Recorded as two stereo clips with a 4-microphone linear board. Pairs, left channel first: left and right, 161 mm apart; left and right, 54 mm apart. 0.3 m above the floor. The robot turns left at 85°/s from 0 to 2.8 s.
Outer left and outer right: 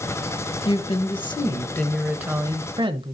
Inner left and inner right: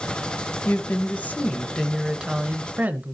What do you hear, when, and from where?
0.7 s a woman speaking: 115° left, 1.0 m; by 3.1 s 70° right, 1.0 m